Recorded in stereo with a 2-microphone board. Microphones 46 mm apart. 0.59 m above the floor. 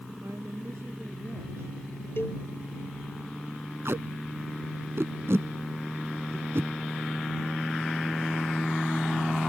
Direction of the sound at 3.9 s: 60° right (ahead or behind).